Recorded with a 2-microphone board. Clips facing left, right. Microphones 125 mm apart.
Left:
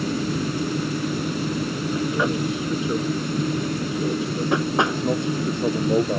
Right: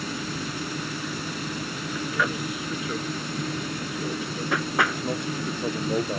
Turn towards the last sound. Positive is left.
turn(degrees=20)  # may be behind; listen again after turning